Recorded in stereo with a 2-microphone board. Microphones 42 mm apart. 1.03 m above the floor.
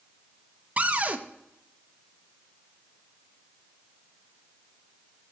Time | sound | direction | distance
0.8 | a cupboard door | 35° right (ahead or behind) | 0.6 m